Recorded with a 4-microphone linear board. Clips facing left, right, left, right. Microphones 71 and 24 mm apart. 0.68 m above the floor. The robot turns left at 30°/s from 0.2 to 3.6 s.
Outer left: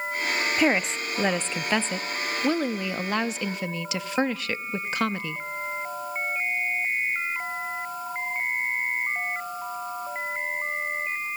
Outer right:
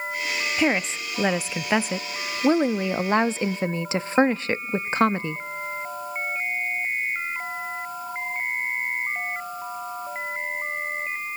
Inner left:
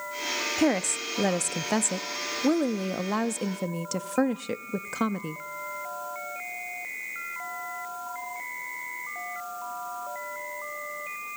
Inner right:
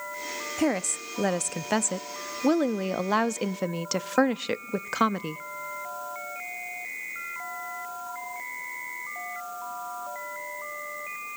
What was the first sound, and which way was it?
A woman speaking, 10° left.